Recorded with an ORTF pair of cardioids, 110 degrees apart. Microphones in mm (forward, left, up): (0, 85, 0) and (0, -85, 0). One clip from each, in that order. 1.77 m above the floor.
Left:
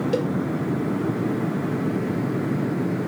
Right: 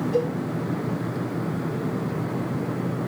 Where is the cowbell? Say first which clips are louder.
Right 2 dB; 70° left, 2 m.